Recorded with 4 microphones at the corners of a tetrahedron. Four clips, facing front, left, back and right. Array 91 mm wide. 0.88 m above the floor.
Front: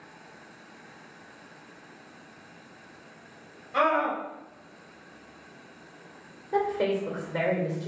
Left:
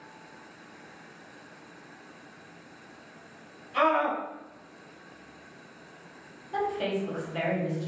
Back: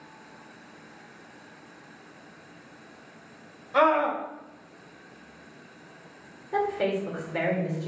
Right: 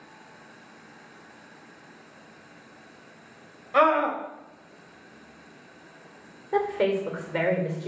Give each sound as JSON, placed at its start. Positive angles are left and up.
{"t": 3.7, "sound": "a scream", "azimuth_deg": -100, "distance_m": 3.5}
{"t": 6.5, "sound": "a woman speaking", "azimuth_deg": -75, "distance_m": 2.5}